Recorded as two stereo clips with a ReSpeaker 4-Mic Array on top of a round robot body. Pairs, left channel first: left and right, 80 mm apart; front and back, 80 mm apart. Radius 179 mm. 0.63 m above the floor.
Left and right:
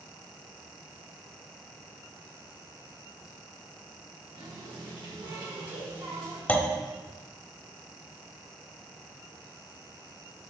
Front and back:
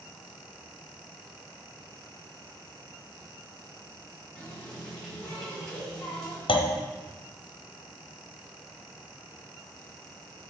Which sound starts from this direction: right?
A running tap, at 4.3 s.